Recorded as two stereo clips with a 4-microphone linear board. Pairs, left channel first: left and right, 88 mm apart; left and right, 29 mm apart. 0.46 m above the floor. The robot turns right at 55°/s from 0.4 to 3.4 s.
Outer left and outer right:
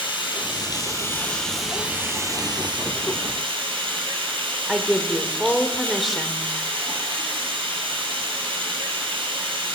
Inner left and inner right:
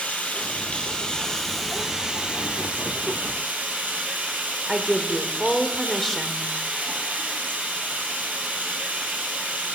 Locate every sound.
0.0 s running water: 115° left, 3 m; by 9.8 s 80° right, 3 m
4.7 s a woman speaking: centre (ahead or behind), 1.1 m